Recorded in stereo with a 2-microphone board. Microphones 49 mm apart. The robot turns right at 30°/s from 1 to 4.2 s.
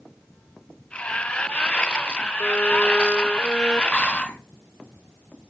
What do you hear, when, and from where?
2.4 s a violin: 130° left, 0.7 m; by 3.8 s 170° left, 0.7 m
3.9 s whispering: 25° left (ahead or behind), 1.0 m